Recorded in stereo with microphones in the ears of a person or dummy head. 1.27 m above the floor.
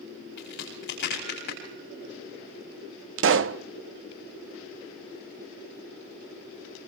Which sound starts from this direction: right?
A pop, at 3.2 s.